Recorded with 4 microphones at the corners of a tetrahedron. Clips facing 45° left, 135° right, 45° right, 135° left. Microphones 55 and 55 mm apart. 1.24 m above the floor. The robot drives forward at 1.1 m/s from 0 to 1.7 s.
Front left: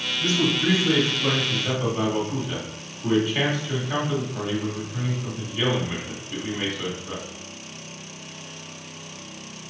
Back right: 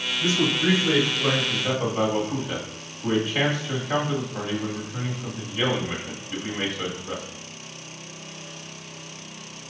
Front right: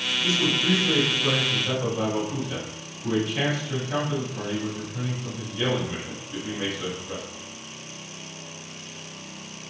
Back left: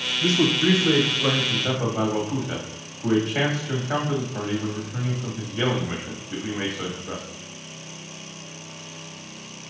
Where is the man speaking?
150° left, 0.6 m; by 7.2 s 170° left, 2 m.